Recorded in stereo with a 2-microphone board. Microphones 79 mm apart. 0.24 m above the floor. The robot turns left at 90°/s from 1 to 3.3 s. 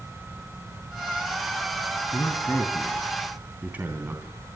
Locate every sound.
2.1 s a man speaking: 50° left (ahead or behind), 2.5 m; by 4.3 s 20° right (ahead or behind), 2.5 m